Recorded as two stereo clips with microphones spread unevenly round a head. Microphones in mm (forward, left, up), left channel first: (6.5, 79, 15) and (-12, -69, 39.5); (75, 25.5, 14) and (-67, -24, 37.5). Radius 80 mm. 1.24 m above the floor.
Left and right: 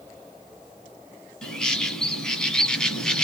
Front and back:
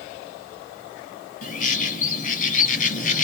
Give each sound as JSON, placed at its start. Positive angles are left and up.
{"t": 1.4, "sound": "a bird", "azimuth_deg": -10, "distance_m": 1.5}